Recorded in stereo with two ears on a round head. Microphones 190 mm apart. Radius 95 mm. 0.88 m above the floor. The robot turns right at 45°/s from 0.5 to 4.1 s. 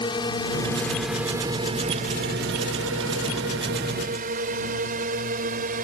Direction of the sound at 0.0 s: 20° left (ahead or behind).